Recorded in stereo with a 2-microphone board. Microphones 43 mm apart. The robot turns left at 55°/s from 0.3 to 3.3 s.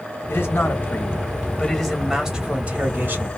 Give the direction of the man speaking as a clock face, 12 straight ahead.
9 o'clock.